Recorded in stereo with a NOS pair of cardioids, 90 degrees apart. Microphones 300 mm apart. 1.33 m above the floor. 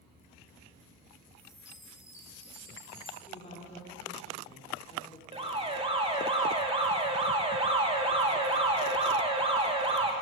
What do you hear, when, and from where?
1.4 s a chime: 10° left, 4 m
3.3 s a woman speaking: 20° left, 3.5 m
5.3 s an alarm: 20° right, 1.9 m